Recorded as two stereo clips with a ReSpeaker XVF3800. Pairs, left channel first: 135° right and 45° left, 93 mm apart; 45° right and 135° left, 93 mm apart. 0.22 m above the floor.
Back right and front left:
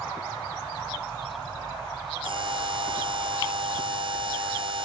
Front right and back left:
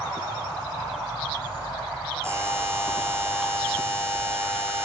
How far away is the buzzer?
About 3.5 m.